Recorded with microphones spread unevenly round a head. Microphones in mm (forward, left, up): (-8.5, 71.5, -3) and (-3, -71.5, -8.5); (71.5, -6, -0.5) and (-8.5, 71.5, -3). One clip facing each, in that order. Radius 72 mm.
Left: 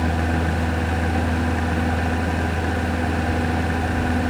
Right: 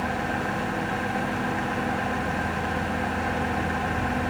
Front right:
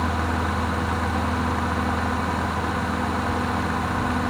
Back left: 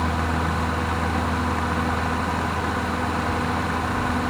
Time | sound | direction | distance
0.0 | a fan | 45° left | 1.4 m